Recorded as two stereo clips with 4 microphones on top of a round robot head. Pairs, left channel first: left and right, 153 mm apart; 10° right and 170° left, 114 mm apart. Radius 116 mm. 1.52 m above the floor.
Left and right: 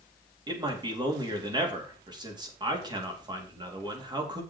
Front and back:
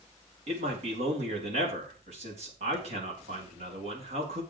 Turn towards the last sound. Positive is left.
turn(degrees=-150)